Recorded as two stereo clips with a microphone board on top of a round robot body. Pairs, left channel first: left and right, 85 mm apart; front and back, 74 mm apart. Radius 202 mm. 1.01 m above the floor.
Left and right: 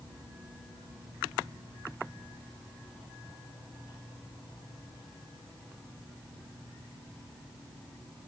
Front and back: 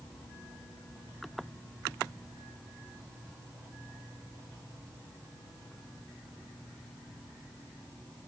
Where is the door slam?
I don't hear a door slam.